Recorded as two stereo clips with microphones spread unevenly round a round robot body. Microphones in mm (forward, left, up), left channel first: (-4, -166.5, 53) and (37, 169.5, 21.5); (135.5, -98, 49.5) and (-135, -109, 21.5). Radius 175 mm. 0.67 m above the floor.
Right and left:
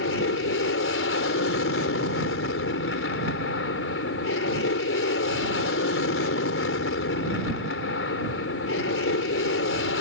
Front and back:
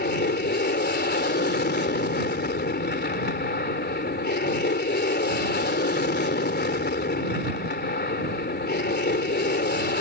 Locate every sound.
0.0 s an aircraft: 45° right